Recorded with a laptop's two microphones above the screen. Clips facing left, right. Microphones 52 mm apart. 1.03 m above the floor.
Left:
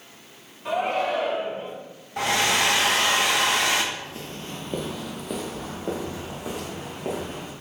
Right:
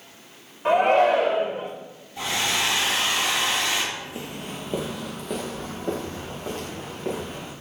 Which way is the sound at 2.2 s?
55° left (ahead or behind).